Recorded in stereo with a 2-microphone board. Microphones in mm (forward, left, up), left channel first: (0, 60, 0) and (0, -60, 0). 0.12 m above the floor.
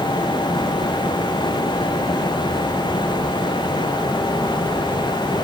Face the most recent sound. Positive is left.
No sound to turn to.